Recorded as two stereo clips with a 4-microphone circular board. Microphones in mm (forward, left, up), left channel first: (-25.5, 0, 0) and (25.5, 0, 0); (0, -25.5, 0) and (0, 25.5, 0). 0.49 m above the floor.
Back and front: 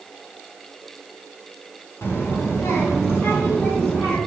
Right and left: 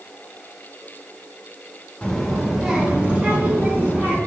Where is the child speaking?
160° right, 1.0 m; by 4.2 s 145° left, 2.5 m.